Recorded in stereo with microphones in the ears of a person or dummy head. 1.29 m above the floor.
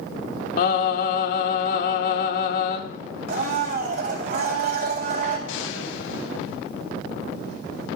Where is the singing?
60° left (ahead or behind), 1.5 m.